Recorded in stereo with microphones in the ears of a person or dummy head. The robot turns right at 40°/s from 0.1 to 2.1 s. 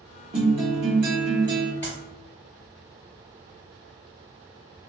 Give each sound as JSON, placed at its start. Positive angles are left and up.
{"t": 0.3, "sound": "a guitar", "azimuth_deg": -90, "distance_m": 0.9}
{"t": 1.8, "sound": "a clap", "side_deg": 10, "distance_m": 1.5}